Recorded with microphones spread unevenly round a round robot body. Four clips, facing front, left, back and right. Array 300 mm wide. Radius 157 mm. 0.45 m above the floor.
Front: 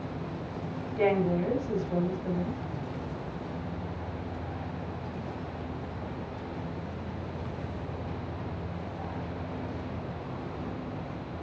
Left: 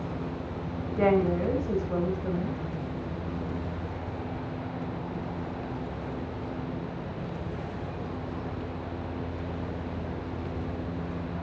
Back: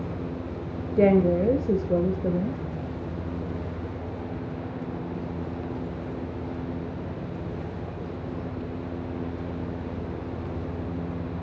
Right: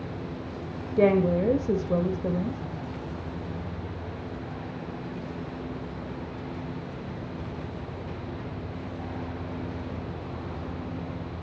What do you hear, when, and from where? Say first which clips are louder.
1.0 s a woman speaking: right 3 dB, back 7 dB; 150° right, 2 m